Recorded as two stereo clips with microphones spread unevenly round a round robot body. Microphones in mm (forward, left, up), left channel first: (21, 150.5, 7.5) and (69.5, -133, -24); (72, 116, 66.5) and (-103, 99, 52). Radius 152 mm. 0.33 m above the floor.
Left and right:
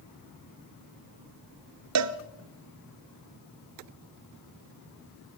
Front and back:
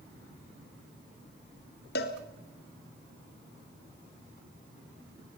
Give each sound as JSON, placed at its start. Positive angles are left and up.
{"t": 1.9, "sound": "a cowbell", "azimuth_deg": -45, "distance_m": 1.1}